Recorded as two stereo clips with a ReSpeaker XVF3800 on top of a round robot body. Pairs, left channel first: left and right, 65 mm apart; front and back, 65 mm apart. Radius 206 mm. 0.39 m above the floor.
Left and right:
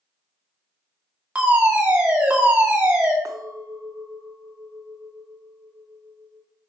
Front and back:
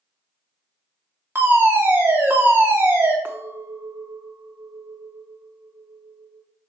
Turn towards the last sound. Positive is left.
turn(degrees=-120)